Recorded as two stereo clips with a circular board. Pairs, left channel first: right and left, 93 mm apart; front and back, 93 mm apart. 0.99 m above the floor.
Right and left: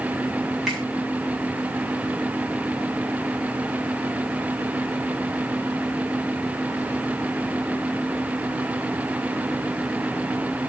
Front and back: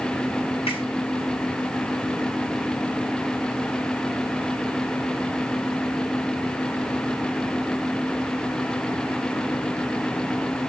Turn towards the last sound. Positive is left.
turn(degrees=0)